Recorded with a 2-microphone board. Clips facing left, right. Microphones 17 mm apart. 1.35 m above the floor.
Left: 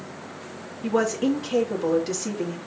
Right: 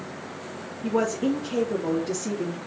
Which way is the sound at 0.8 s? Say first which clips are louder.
Left 2 dB; 85° left.